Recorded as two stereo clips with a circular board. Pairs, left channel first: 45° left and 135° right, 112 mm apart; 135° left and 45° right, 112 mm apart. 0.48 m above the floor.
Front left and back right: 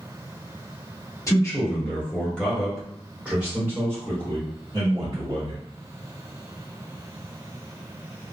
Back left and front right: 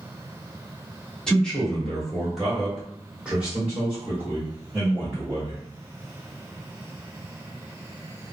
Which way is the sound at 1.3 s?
60° left.